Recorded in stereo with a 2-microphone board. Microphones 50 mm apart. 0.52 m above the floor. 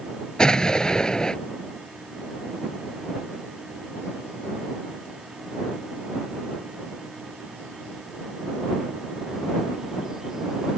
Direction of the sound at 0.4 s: 15° left (ahead or behind).